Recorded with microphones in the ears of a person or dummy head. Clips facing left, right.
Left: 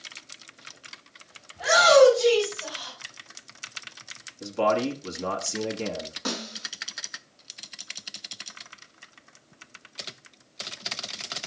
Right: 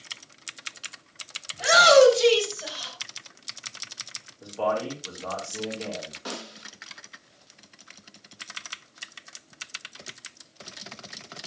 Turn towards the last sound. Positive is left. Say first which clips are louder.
# left 4 dB
turn(degrees=70)  # may be behind; listen again after turning